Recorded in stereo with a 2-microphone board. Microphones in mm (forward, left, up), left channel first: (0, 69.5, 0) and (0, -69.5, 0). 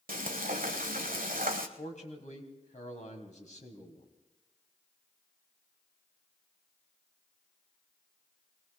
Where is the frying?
90° right, 1.3 m.